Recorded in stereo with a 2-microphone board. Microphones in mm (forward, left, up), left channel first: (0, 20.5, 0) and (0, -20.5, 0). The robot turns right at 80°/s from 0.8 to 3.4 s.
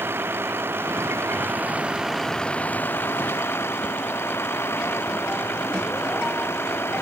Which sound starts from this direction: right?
A vehicle, at 0.0 s.